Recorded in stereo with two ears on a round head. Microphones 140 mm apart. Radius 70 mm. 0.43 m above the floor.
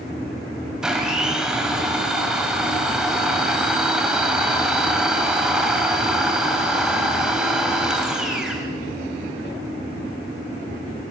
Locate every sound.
0.8 s a blender: 5° right (ahead or behind), 3 m